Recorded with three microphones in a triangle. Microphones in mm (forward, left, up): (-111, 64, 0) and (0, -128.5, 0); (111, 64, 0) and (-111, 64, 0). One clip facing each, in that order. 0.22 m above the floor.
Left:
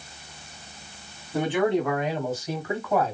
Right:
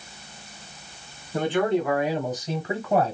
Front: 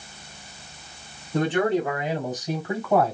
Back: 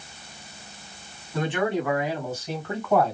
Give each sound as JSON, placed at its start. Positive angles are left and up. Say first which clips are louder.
{"t": 1.3, "sound": "a man speaking", "louder": "even, front 3 dB", "azimuth_deg": 40, "distance_m": 1.9}